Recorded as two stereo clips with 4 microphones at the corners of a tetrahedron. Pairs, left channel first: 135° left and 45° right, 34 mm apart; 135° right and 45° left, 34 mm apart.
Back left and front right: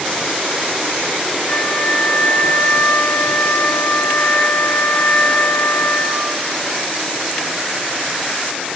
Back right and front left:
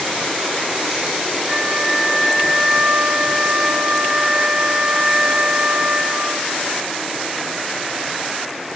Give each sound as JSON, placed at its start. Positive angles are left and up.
{"t": 1.5, "sound": "a flute", "azimuth_deg": 110, "distance_m": 3.0}